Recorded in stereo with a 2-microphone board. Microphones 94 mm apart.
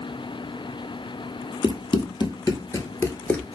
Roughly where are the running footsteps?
Left.